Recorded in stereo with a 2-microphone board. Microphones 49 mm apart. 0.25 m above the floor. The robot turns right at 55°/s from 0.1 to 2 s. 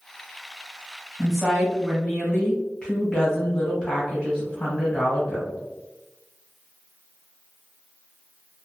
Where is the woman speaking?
15° right, 1.2 m; by 5.6 s 30° left, 1.2 m.